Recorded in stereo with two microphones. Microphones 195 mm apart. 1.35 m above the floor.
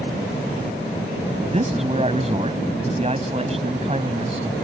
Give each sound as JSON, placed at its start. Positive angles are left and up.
{"t": 1.5, "sound": "a man speaking", "side_deg": -30}